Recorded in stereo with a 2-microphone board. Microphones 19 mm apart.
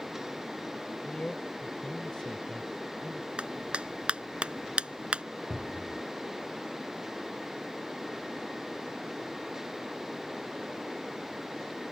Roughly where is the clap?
Right.